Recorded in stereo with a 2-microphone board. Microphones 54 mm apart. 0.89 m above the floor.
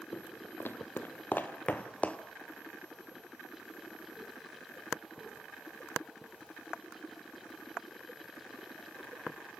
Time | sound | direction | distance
0.1 | footsteps | 45° left (ahead or behind) | 1.8 m